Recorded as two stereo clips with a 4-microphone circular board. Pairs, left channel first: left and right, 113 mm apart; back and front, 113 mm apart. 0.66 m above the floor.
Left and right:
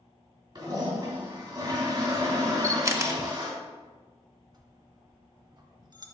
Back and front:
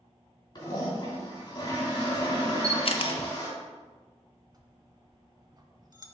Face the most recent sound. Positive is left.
turn(degrees=-50)